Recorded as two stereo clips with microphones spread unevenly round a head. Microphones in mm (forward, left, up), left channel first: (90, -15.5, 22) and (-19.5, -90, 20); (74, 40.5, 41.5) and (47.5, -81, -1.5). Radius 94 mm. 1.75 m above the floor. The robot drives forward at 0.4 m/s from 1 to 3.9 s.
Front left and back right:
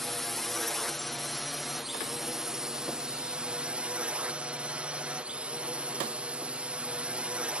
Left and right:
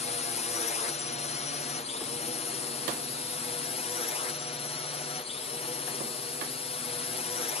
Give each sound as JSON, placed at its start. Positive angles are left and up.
{"t": 0.0, "sound": "a drone", "azimuth_deg": 120}